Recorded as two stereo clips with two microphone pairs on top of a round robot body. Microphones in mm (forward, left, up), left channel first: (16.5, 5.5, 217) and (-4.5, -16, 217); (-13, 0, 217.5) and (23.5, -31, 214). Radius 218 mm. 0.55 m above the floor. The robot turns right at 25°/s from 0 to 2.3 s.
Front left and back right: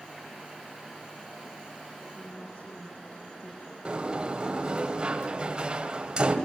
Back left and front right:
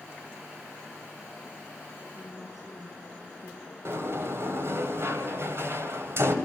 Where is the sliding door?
75° right, 2.5 m.